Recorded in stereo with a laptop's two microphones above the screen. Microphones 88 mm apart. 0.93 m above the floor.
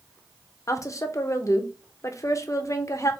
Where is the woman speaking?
40° left (ahead or behind), 0.7 m.